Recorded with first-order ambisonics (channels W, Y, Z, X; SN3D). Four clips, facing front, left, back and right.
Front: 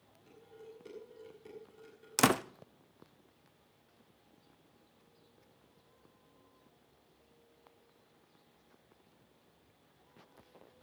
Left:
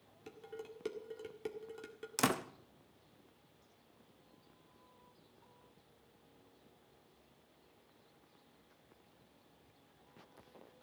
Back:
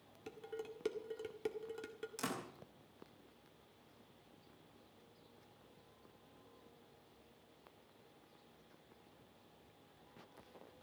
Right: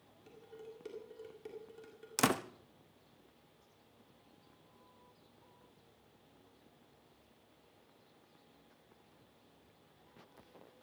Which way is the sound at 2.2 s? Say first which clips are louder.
Right 2 dB, front 16 dB; 10° right.